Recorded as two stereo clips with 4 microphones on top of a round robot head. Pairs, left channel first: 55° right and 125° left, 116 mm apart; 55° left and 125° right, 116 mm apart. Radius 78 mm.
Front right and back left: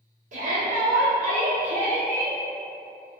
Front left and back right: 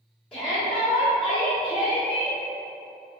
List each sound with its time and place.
0.3 s a shout: 135° left, 1.0 m